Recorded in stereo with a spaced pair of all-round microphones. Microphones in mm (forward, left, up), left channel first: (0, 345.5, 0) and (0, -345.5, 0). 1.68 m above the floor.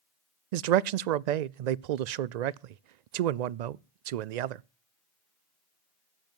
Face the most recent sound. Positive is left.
turn(degrees=-75)  # may be behind; listen again after turning